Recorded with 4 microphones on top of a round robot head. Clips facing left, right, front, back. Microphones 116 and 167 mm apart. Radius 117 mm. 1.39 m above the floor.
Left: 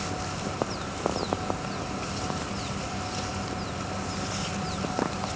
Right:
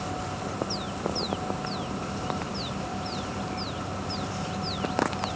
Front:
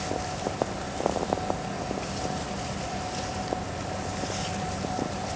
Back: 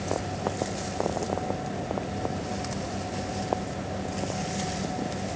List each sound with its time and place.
Only background noise.